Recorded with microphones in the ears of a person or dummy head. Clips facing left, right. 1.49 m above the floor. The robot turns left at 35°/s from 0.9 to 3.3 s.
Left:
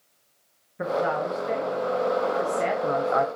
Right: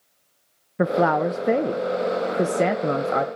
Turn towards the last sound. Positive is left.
turn(degrees=-155)